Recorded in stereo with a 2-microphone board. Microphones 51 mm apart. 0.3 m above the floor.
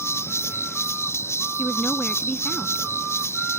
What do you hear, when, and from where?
0.0 s an insect: 65° left (ahead or behind)
1.6 s a woman speaking: 30° left (ahead or behind)